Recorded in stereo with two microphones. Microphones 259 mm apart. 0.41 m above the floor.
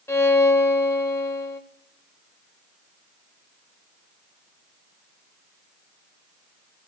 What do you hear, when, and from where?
0.1 s a violin: 10° left (ahead or behind), 0.9 m